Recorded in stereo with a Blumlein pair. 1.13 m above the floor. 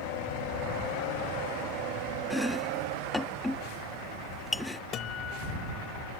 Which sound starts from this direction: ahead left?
A guitar, at 4.9 s.